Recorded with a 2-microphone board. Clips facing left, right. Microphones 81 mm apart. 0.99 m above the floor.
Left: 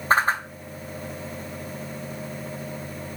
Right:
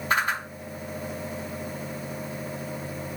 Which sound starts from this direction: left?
A whoosh, at 0.1 s.